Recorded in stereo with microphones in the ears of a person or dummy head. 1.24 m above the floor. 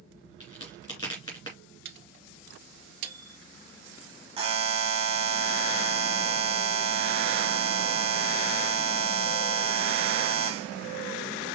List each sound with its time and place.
0.4 s a crack: 25° left (ahead or behind), 2.5 m
1.9 s a microwave: 60° right (ahead or behind), 1.6 m
4.4 s a buzzer: 25° right (ahead or behind), 0.9 m